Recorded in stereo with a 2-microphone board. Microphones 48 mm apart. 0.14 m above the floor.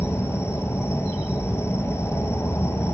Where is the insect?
70° left (ahead or behind), 0.8 m.